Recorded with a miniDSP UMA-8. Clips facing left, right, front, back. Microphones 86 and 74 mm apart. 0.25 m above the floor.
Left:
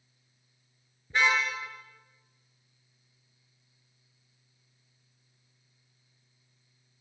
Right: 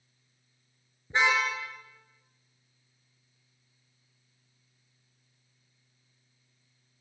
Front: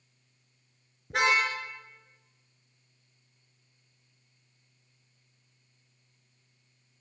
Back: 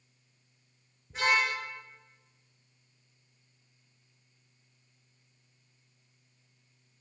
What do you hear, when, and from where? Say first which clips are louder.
1.1 s a car horn: right 1 dB, front 2 dB; 25° right, 7.5 m